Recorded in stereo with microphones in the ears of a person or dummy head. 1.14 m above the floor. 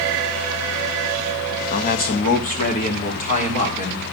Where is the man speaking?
45° left (ahead or behind), 1.1 m; by 4.0 s 40° left (ahead or behind), 3 m.